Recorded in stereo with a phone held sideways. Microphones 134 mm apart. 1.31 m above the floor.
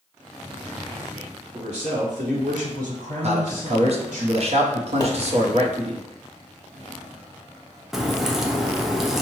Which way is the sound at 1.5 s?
45° right (ahead or behind).